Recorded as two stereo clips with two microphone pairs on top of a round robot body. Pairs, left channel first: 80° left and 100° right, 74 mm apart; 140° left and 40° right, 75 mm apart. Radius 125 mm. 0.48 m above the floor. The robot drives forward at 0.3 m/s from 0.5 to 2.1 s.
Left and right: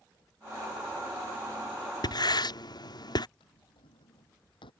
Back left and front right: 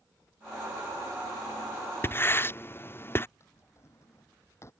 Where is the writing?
90° left.